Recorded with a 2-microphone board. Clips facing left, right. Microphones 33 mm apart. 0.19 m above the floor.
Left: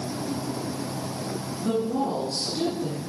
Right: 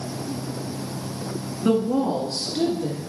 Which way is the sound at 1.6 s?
50° right (ahead or behind).